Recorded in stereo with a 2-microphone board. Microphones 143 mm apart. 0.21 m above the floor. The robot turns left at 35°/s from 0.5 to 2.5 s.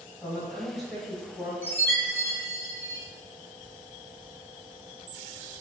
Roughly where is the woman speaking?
Centre.